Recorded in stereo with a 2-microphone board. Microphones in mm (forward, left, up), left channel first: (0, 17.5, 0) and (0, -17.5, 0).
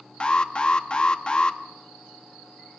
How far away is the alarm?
About 0.7 m.